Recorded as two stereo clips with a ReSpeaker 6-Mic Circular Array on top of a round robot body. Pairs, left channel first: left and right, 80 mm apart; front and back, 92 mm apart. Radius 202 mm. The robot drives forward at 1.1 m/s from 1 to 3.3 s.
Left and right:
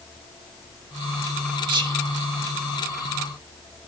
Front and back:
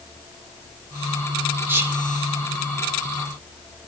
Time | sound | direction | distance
1.7 | whispering | 110° right | 1.8 m